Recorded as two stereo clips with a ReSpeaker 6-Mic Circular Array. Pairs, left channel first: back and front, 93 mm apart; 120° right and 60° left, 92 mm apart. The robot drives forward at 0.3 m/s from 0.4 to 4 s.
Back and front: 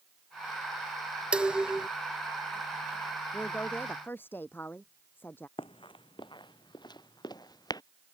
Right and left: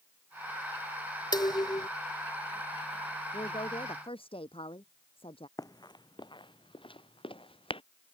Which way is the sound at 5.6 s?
170° right.